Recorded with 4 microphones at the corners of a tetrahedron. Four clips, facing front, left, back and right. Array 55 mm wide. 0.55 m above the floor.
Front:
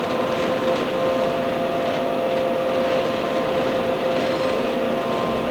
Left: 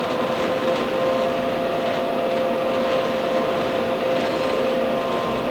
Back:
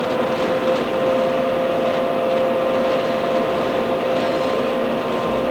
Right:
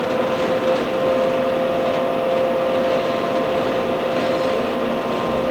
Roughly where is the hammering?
No hammering in this recording.